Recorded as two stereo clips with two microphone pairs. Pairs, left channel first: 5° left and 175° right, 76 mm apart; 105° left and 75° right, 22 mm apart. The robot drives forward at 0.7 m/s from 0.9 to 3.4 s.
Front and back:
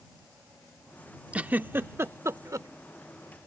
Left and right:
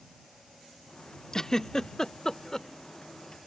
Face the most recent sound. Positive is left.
turn(degrees=165)